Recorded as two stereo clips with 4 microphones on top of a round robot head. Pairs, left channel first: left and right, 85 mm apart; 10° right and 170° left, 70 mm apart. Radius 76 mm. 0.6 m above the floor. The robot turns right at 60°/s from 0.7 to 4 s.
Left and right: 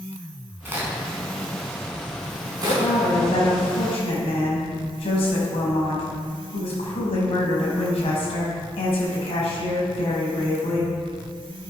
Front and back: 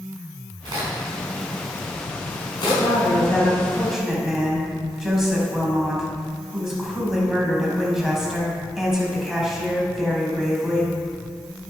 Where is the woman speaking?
5° left, 5 m; by 10.9 s 85° left, 5 m.